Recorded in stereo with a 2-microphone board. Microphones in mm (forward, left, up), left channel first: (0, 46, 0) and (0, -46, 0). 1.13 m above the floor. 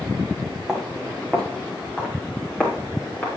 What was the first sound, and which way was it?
Footsteps, 5° right (ahead or behind).